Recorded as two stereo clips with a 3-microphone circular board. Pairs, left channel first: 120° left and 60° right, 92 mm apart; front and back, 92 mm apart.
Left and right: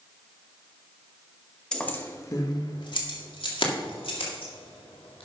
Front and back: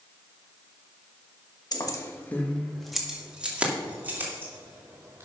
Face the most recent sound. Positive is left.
turn(degrees=115)